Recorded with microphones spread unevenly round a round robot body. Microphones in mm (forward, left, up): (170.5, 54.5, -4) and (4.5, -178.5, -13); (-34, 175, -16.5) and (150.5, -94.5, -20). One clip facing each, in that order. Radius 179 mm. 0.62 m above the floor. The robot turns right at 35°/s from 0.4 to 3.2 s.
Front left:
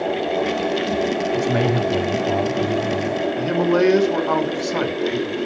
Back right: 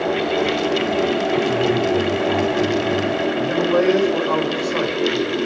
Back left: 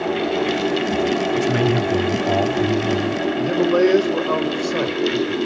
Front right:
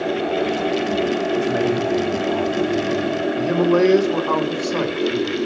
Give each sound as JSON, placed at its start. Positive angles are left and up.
{"t": 1.3, "sound": "a man speaking", "azimuth_deg": 75, "distance_m": 4.0}
{"t": 3.4, "sound": "a man speaking", "azimuth_deg": 25, "distance_m": 3.0}